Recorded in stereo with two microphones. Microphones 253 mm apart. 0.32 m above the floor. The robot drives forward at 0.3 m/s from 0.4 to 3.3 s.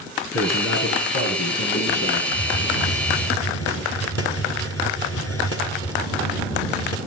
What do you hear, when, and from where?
0.3 s a man speaking: 70° left (ahead or behind), 4 m; by 2.2 s 65° left (ahead or behind), 4 m
2.3 s a hiss: 60° left (ahead or behind), 2.5 m; by 7.0 s 65° left (ahead or behind), 2 m